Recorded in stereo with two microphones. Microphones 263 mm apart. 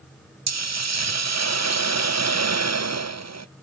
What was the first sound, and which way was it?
A hiss, 80° right.